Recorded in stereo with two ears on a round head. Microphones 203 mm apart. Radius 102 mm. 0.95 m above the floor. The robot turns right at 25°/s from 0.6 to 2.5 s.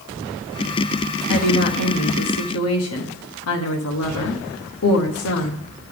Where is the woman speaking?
75° left, 1.1 m; by 5.6 s 105° left, 1.1 m.